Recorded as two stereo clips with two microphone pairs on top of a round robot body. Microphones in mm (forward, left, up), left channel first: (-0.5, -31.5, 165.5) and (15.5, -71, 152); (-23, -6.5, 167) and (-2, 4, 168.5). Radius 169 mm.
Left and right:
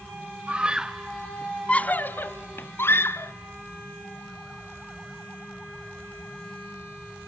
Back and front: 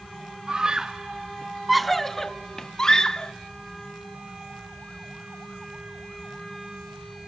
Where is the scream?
30° right, 1.0 m; by 3.3 s 150° left, 1.4 m.